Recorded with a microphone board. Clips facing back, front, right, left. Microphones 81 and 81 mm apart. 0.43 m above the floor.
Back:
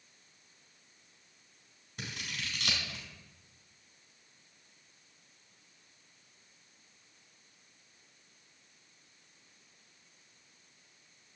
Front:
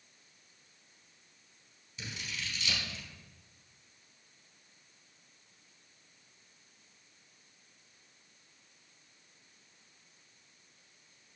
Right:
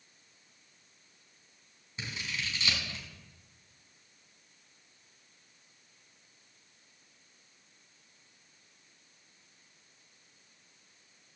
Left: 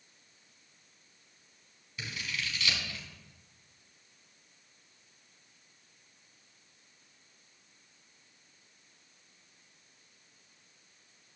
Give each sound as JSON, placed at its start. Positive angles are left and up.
{"t": 2.0, "sound": "scissors", "azimuth_deg": -150, "distance_m": 4.0}